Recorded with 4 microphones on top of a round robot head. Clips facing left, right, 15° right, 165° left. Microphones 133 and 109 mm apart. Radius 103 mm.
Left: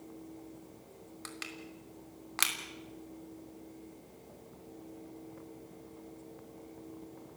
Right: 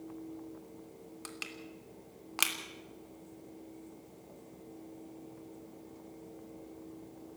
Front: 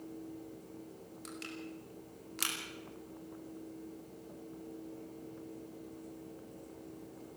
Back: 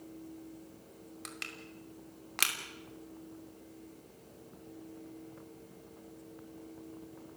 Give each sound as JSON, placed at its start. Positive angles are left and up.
{"t": 1.2, "sound": "crushing", "azimuth_deg": -165, "distance_m": 3.0}